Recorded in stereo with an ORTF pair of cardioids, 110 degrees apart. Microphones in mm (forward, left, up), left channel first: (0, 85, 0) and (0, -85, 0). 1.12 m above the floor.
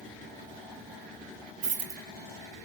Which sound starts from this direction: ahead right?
A dropped coin, at 1.6 s.